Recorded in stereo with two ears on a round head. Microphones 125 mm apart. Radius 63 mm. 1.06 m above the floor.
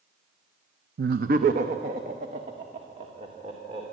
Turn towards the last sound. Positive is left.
turn(degrees=-40)  # may be behind; listen again after turning